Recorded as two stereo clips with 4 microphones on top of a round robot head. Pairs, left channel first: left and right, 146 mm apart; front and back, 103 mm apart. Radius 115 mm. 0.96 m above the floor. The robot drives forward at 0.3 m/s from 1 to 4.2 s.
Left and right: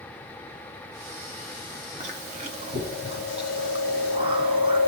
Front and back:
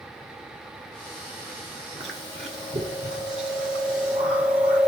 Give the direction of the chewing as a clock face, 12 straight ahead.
4 o'clock.